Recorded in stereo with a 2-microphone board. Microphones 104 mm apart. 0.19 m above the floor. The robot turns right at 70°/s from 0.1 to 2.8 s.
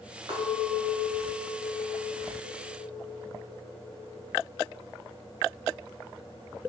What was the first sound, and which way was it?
A clink, 60° right.